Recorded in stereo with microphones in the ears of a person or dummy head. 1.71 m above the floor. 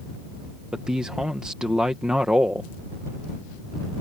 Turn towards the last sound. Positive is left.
turn(degrees=-5)  # may be behind; listen again after turning